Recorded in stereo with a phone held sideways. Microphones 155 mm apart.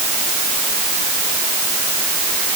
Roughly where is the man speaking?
I don't hear a man speaking.